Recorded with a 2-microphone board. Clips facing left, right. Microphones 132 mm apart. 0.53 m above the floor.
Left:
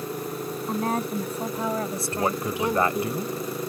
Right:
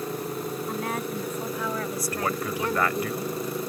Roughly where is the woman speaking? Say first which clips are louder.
Left 7 dB; left.